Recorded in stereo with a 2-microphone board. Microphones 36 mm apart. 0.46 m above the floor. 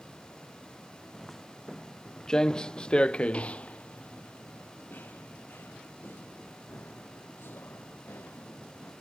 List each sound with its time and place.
1.1 s footsteps: 5° left (ahead or behind); by 8.9 s 80° left